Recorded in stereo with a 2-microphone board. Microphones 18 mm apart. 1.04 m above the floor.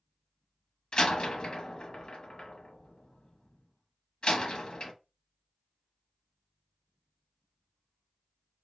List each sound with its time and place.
0.9 s a door slam: 50° left (ahead or behind), 0.8 m